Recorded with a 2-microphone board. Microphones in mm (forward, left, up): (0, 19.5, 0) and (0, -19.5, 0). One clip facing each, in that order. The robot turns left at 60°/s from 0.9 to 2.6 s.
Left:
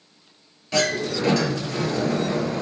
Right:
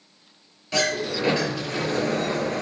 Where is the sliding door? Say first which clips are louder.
Left 2 dB; straight ahead, 2.0 m; by 2.6 s 105° right, 2.0 m.